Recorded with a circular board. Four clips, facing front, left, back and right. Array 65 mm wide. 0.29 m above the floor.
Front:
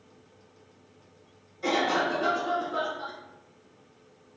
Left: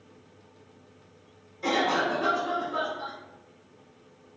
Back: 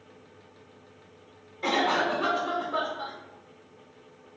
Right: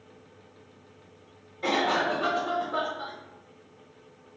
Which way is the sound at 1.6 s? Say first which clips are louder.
Even, back 1 dB; 135° right.